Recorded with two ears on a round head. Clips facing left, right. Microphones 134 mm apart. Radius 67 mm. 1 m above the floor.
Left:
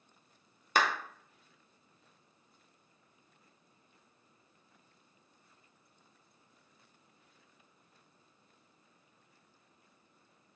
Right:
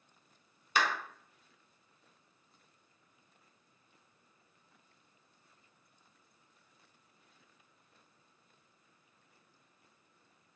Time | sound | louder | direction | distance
0.8 | a clap | left 2 dB | 40° left (ahead or behind) | 0.6 m